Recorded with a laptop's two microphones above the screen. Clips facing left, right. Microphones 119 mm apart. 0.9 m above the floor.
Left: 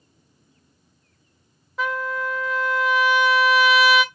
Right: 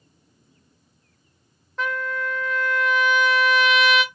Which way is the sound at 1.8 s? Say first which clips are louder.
Left 1 dB; 5° left (ahead or behind).